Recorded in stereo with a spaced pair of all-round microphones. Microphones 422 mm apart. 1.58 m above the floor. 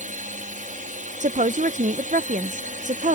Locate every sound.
0.0 s a drone: 15° right (ahead or behind)
1.2 s a woman speaking: 20° right (ahead or behind)